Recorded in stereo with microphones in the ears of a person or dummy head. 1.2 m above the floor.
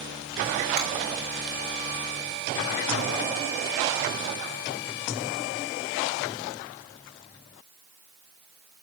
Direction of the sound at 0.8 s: 50° right (ahead or behind).